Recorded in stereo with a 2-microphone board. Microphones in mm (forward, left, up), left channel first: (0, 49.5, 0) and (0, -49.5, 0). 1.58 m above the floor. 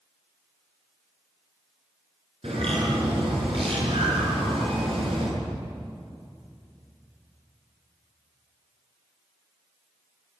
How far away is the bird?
About 7.5 m.